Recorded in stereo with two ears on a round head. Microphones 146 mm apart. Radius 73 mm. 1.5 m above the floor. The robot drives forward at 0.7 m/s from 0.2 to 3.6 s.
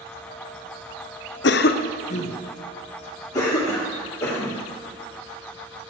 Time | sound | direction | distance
1.4 | a cough | 75° left (ahead or behind) | 0.6 m